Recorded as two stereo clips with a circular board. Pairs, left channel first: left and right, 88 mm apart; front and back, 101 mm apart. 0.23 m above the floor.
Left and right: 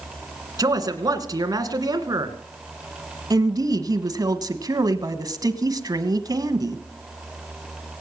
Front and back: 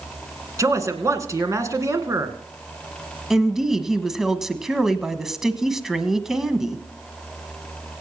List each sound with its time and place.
0.6 s a man speaking: 125° right, 2 m
3.3 s a woman speaking: 95° right, 1.3 m